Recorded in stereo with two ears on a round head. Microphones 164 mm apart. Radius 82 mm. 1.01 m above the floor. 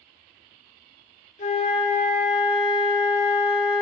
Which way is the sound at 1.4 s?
40° left (ahead or behind).